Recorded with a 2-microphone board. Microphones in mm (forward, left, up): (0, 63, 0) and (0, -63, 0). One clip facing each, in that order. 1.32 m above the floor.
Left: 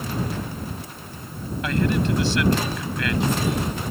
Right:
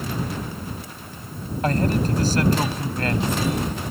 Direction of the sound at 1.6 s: 40° right (ahead or behind).